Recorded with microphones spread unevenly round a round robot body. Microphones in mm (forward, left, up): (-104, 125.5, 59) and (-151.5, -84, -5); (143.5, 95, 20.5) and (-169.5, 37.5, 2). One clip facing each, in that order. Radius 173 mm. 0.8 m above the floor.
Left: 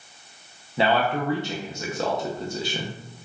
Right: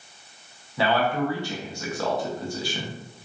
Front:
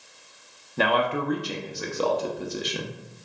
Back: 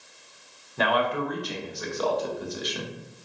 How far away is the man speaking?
About 0.5 m.